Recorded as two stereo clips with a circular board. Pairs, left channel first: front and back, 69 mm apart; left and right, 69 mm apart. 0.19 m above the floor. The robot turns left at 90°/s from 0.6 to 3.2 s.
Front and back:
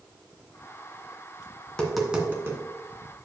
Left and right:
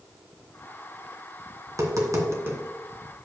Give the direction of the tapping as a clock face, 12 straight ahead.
2 o'clock.